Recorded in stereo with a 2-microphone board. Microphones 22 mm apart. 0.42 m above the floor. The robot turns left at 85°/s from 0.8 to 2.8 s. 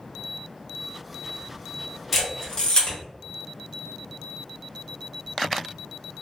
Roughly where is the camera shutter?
Centre.